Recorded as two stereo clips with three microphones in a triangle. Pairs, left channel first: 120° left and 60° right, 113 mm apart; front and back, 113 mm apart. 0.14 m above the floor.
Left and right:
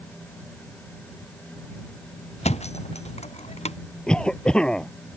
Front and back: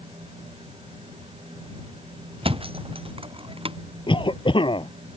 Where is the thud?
140° left.